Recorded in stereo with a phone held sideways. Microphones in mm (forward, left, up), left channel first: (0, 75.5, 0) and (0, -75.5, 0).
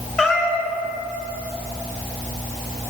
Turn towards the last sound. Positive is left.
turn(degrees=5)  # may be behind; listen again after turning